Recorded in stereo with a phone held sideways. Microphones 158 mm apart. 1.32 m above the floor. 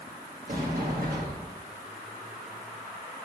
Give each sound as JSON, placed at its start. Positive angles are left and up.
{"t": 0.5, "sound": "a sliding door", "side_deg": -70, "distance_m": 1.2}